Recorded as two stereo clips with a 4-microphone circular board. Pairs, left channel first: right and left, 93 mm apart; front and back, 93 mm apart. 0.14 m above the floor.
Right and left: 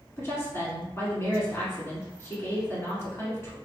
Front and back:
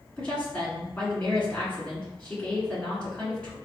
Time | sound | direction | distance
0.2 | a woman speaking | 65° right | 1.6 m